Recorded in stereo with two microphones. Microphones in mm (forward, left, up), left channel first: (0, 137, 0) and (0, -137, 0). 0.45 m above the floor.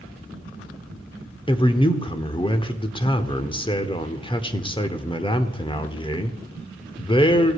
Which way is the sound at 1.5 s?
20° left (ahead or behind).